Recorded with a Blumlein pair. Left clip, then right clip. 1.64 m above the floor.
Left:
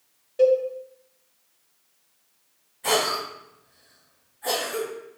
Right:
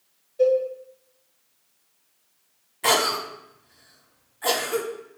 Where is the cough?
35° right, 0.9 m.